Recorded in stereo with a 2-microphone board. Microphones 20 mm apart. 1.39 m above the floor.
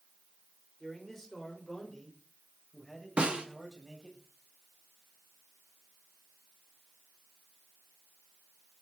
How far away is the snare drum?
About 3 m.